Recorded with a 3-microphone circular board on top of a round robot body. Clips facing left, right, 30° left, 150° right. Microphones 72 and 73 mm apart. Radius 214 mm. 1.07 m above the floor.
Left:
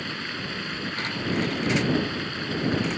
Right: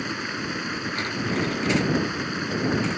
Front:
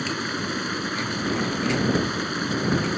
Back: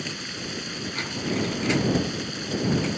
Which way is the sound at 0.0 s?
15° right.